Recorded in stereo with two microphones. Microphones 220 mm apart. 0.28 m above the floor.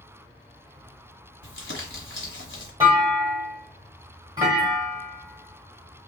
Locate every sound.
1.4 s crumpling: 60° left (ahead or behind), 1.4 m
2.8 s a clunk: 15° right (ahead or behind), 1.2 m